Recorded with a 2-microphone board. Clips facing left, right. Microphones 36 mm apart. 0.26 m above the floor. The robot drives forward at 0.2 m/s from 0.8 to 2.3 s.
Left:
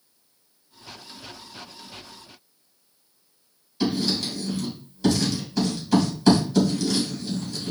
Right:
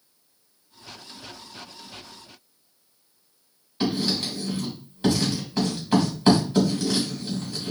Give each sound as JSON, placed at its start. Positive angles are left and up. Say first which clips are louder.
{"t": 3.8, "sound": "writing", "louder": "left 1 dB", "side_deg": -35, "distance_m": 1.8}